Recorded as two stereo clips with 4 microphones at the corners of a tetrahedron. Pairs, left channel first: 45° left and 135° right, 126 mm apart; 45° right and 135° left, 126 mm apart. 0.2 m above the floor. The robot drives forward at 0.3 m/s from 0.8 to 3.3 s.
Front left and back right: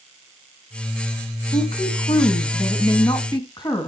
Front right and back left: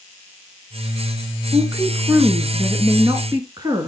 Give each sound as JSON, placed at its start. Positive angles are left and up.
{"t": 1.5, "sound": "a woman speaking", "azimuth_deg": 70, "distance_m": 1.9}